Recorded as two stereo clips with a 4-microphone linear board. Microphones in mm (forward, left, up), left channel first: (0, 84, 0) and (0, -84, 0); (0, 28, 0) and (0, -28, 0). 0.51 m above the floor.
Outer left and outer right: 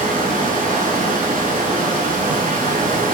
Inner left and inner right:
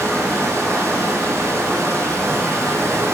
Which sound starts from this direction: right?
Running water, at 0.0 s.